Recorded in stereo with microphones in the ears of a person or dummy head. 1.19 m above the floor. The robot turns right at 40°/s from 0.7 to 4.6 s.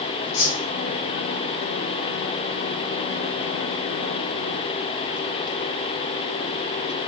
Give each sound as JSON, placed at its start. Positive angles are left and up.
{"t": 0.3, "sound": "a whoosh", "side_deg": 65, "distance_m": 1.2}